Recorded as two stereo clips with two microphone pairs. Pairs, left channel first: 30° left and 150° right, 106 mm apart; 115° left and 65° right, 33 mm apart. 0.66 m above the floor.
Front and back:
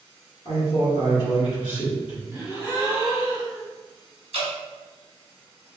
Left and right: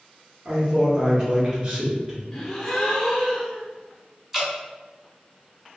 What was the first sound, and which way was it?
A man speaking, 5° right.